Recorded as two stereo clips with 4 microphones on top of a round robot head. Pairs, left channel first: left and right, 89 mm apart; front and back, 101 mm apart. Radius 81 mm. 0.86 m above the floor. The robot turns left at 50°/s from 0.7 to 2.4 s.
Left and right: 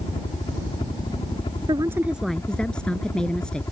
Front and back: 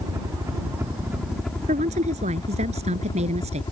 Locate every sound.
0.0 s a helicopter: 125° left; by 3.7 s 40° left
1.7 s a woman speaking: 150° right; by 3.6 s 175° left